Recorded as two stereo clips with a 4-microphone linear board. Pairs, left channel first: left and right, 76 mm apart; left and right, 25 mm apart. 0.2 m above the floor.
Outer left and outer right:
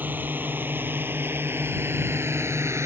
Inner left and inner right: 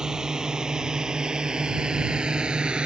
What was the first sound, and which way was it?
A drone, 25° right (ahead or behind).